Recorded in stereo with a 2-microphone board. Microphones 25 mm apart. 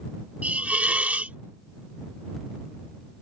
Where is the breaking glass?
I don't hear breaking glass.